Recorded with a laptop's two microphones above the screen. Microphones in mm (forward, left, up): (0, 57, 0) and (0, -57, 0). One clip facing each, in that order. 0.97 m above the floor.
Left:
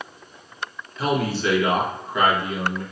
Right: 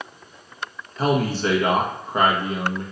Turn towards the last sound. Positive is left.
turn(degrees=-40)  # may be behind; listen again after turning